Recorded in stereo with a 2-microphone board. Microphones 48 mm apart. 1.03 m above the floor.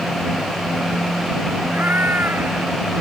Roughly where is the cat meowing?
Right.